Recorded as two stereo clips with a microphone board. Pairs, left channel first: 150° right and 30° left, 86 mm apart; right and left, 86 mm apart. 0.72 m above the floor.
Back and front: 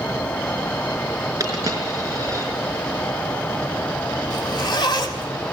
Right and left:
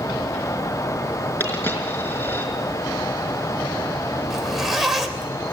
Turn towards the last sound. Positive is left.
turn(degrees=180)